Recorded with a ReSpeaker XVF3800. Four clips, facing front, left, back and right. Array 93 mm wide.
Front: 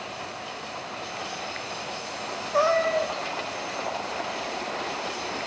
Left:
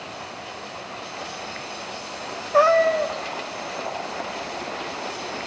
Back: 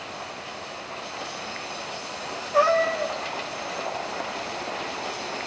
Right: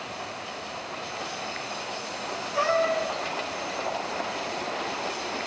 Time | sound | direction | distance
2.5 | a cat meowing | 85° left | 3 m